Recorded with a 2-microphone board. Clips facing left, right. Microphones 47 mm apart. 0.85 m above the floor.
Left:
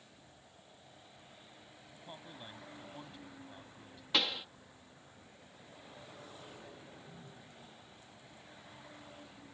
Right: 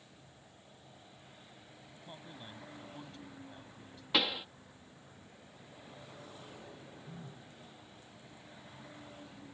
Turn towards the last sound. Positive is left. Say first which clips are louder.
# right 3 dB
turn(degrees=-55)  # may be behind; listen again after turning